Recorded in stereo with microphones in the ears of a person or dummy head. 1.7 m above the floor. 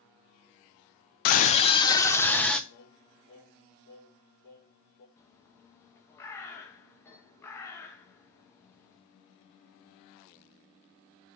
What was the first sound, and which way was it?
A scream, 50° left (ahead or behind).